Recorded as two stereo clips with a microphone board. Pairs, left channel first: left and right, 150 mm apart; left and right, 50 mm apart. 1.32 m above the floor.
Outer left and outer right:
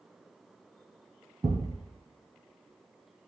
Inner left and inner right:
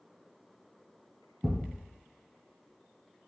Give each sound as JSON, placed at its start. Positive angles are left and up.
{"t": 1.4, "sound": "a thud", "side_deg": -10, "distance_m": 1.7}